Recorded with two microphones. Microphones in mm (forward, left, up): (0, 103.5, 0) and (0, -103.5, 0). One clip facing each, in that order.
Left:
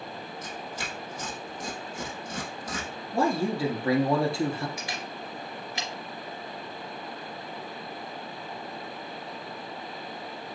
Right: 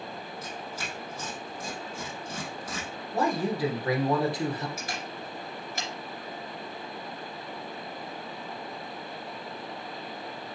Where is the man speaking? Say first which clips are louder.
Left 2 dB; 30° left (ahead or behind), 1.8 m.